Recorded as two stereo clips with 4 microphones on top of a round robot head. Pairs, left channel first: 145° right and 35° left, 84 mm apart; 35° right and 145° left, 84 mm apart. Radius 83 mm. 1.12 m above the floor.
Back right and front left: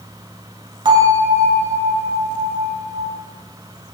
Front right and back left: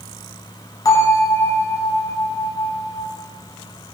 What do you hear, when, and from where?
0.8 s a bell: 10° left, 7 m